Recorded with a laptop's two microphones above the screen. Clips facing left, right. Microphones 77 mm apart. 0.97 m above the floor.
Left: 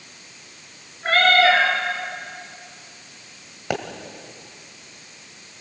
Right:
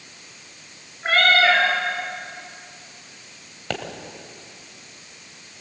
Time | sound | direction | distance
1.0 | a cat meowing | 10° right (ahead or behind) | 7.5 m
3.7 | a pop | 15° left (ahead or behind) | 1.7 m